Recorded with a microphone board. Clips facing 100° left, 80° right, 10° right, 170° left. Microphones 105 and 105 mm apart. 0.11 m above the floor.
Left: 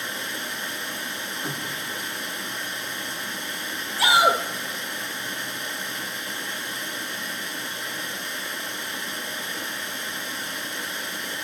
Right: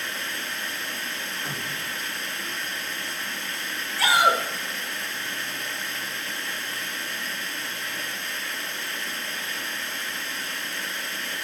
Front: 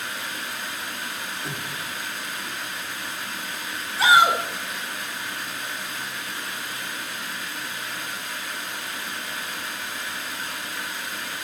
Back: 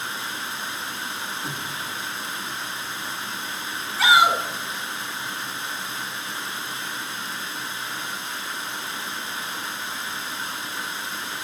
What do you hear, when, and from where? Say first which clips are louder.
0.0 s running water: left 1 dB, back 1 dB; 145° left, 0.7 m
1.4 s a cupboard door: left 1 dB, back 1 dB; 150° left, 4 m
4.0 s a shout: left 1 dB, front 1 dB; 80° left, 1.3 m